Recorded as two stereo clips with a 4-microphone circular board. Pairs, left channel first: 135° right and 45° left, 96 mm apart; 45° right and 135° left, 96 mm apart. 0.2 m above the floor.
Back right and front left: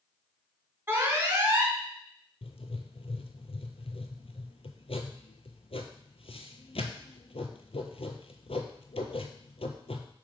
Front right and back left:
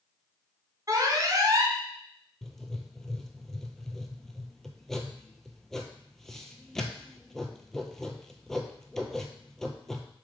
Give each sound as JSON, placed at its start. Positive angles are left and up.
{"t": 0.9, "sound": "an alarm", "azimuth_deg": 105, "distance_m": 1.6}
{"t": 2.4, "sound": "writing", "azimuth_deg": -130, "distance_m": 0.8}